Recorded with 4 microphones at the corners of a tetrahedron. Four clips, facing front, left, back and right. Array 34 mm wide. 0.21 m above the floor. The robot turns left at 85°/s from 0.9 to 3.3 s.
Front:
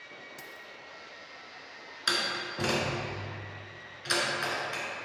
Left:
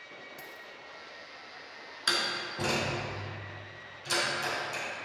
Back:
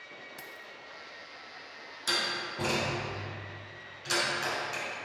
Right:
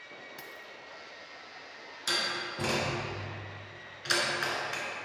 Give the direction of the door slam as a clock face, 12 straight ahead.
11 o'clock.